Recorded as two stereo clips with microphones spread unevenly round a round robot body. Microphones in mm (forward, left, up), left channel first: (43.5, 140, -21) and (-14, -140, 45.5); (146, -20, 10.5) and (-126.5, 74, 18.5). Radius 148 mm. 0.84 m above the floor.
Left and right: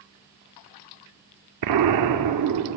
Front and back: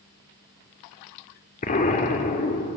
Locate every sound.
1.6 s an explosion: 85° right, 1.4 m